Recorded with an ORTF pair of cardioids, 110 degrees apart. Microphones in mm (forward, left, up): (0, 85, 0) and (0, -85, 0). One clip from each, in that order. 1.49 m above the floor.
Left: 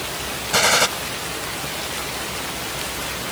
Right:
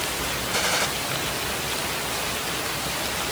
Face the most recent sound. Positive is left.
turn(degrees=50)